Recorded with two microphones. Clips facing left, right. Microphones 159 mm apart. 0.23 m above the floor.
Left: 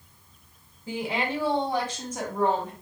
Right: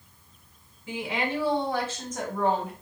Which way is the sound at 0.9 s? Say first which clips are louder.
Left 1 dB; 35° left (ahead or behind).